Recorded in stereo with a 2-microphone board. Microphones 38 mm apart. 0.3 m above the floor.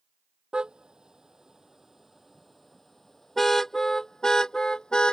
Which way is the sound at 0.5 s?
25° right (ahead or behind).